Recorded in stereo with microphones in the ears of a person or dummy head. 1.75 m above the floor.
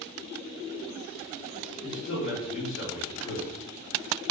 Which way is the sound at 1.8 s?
70° left (ahead or behind).